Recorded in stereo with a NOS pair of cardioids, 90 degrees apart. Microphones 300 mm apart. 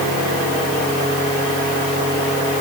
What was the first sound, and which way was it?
Only background noise.